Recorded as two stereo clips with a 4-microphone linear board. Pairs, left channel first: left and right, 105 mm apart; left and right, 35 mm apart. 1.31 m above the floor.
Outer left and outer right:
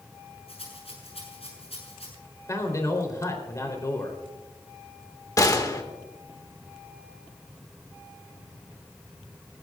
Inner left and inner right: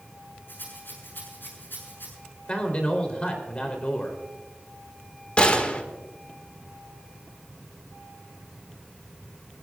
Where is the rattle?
80° left, 8 m.